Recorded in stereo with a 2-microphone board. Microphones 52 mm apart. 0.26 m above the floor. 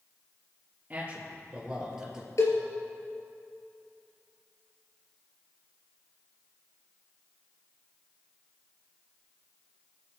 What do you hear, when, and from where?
0.9 s a man speaking: 30° right (ahead or behind), 5 m; by 2.3 s 10° right (ahead or behind), 5 m
2.4 s a cowbell: 65° left (ahead or behind), 3 m